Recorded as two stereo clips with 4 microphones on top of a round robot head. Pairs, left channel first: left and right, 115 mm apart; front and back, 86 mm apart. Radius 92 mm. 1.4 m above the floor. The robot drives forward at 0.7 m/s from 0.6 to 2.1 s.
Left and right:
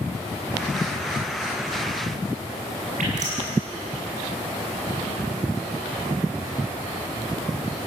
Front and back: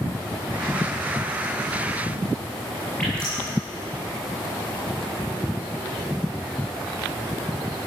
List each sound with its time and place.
3.0 s dripping: 80° right, 8 m